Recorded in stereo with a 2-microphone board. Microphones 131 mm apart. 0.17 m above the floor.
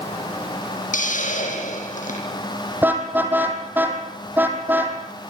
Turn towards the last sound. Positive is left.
turn(degrees=-15)  # may be behind; listen again after turning